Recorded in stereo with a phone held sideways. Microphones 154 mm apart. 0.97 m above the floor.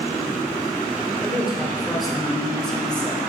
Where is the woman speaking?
5° right (ahead or behind), 4 m; by 3.2 s 10° left (ahead or behind), 3.5 m.